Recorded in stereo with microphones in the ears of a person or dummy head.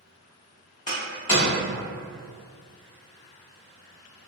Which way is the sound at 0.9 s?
25° left (ahead or behind).